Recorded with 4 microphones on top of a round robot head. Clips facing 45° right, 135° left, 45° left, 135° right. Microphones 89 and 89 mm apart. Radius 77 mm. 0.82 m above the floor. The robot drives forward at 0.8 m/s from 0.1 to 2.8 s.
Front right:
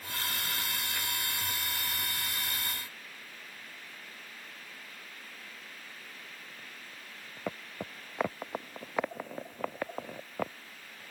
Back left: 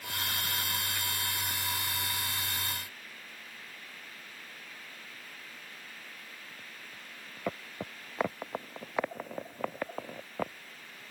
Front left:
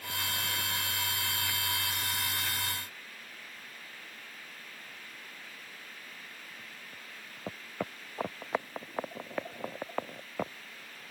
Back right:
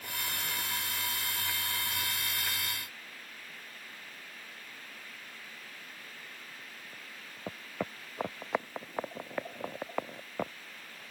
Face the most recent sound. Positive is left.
No sound to turn to.